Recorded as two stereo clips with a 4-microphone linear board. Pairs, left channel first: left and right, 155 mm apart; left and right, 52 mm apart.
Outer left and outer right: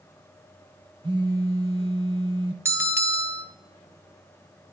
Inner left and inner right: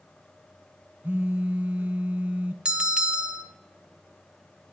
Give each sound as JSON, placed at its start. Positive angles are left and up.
{"t": 1.0, "sound": "a phone buzzing", "side_deg": -35, "distance_m": 0.8}
{"t": 2.6, "sound": "a bell", "side_deg": -20, "distance_m": 0.6}